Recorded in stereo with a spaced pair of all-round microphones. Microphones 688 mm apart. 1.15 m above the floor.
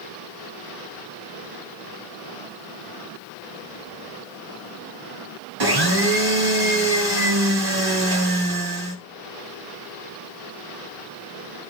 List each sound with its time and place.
5.6 s a blender: 35° right (ahead or behind), 1.1 m